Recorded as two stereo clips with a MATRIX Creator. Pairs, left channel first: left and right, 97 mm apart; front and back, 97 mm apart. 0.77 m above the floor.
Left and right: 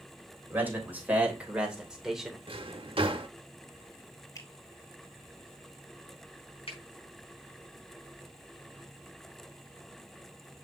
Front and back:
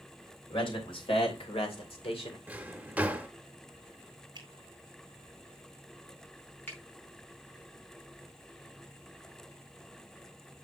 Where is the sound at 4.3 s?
140° left, 2 m.